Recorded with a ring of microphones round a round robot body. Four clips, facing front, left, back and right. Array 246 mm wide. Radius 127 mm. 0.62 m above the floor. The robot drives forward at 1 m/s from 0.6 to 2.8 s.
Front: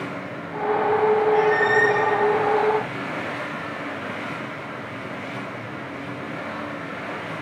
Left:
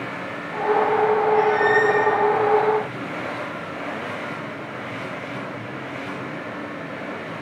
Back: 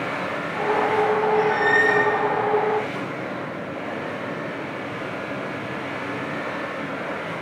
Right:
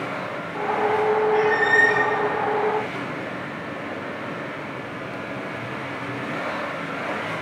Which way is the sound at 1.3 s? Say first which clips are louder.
Left 2 dB, front 1 dB; 60° right.